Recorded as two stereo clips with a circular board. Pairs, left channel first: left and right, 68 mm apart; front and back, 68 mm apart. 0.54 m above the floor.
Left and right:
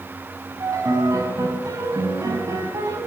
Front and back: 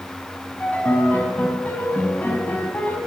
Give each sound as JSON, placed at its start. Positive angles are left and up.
{"t": 0.6, "sound": "a piano", "azimuth_deg": -65, "distance_m": 5.0}